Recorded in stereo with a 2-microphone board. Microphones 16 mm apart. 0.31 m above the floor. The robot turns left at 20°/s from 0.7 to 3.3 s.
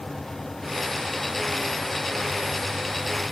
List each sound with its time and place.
Only background noise.